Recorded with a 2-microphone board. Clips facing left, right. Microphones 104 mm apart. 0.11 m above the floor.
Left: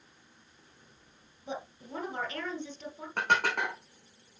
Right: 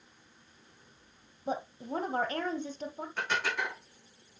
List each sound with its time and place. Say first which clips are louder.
1.5 s a woman speaking: right 5 dB; 40° right (ahead or behind), 2.5 m
3.2 s dishes clattering: left 5 dB; 60° left (ahead or behind), 4.5 m